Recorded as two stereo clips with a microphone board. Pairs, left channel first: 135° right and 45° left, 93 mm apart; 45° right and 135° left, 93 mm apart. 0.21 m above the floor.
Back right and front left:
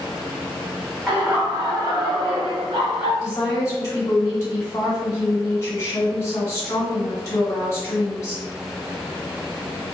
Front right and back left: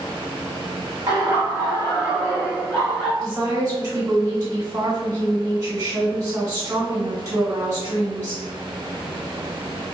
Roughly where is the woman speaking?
Behind.